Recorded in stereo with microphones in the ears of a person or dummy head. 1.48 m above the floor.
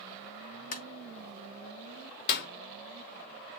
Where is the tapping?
50° left (ahead or behind), 1.2 m.